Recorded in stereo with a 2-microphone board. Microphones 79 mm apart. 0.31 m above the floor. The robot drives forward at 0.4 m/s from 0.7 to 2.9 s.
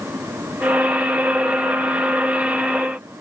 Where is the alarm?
I don't hear an alarm.